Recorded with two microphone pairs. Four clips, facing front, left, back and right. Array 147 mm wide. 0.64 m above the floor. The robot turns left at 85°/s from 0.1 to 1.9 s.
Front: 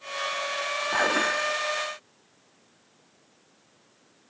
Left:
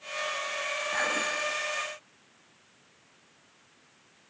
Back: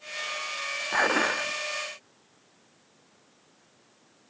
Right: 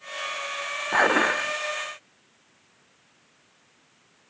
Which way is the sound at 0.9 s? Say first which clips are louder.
Right 12 dB, back 1 dB; 80° right.